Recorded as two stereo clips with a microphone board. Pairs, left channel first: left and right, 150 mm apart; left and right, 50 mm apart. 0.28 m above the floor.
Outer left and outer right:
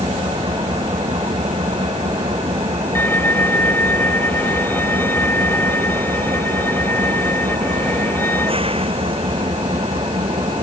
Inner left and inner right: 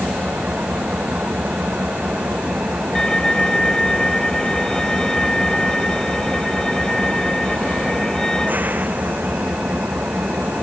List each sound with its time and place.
0.0 s an engine running: 40° right (ahead or behind)
3.0 s a violin: 15° left (ahead or behind)